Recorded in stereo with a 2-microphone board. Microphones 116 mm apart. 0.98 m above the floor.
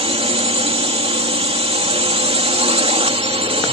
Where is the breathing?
No breathing in this recording.